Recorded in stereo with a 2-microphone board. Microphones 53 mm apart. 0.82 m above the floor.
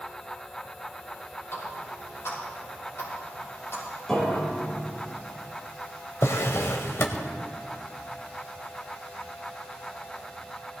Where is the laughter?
No laughter in this recording.